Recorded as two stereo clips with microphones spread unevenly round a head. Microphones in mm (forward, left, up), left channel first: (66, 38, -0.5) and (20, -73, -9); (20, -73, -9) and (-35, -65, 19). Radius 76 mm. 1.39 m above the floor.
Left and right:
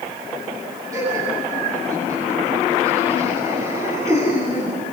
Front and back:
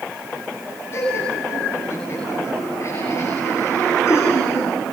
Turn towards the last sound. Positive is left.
turn(degrees=-50)